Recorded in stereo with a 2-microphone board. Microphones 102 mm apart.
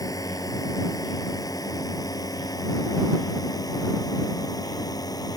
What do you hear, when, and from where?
0.0 s a drone: 35° left (ahead or behind); by 5.4 s 40° left (ahead or behind)